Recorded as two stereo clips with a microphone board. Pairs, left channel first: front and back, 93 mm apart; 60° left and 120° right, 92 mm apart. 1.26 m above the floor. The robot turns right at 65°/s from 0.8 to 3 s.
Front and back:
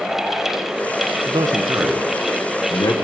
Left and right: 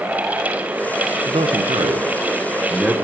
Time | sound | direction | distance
1.2 | a man speaking | 150° right | 0.5 m